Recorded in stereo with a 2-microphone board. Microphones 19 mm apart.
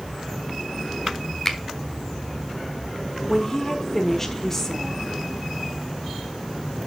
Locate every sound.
1.4 s a finger snap: 25° left (ahead or behind), 1.2 m
3.3 s a woman speaking: 20° left (ahead or behind), 1.3 m